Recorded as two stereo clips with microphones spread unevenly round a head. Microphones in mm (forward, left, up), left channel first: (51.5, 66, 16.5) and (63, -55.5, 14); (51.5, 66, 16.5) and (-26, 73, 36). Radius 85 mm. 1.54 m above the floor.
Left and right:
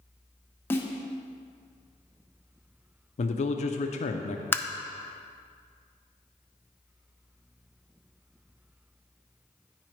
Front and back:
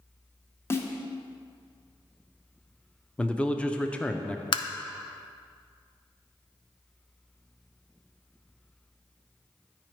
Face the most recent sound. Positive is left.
turn(degrees=20)